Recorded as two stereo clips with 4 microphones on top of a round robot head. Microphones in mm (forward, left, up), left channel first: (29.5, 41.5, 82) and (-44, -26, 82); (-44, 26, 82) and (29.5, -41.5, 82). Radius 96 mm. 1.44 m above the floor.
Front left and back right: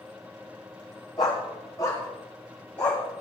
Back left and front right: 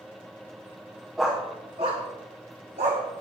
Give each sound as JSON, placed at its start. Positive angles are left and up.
{"t": 1.2, "sound": "a dog barking", "azimuth_deg": 55, "distance_m": 0.9}